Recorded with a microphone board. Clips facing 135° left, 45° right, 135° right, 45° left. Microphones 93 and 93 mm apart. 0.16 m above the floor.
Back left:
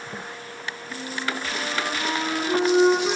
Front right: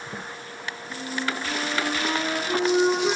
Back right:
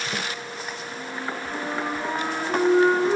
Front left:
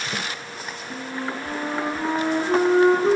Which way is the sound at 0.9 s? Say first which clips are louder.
Front right 1 dB, front left 4 dB; 40° left.